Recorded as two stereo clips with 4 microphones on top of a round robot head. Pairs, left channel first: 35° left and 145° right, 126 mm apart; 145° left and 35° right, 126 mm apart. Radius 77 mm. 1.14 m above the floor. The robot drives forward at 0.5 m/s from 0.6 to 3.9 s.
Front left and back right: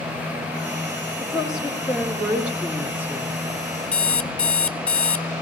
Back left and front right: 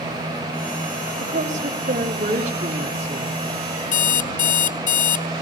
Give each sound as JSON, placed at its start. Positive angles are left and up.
{"t": 1.2, "sound": "a woman speaking", "azimuth_deg": -60, "distance_m": 5.0}
{"t": 3.9, "sound": "an alarm clock", "azimuth_deg": 115, "distance_m": 0.8}